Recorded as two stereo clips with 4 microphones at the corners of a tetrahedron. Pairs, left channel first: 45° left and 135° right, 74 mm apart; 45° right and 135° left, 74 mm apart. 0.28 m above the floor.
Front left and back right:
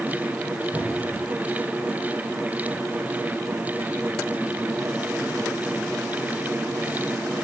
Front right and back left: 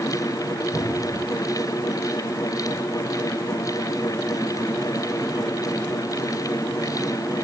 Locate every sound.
0.7 s a cupboard door: 75° right, 7.5 m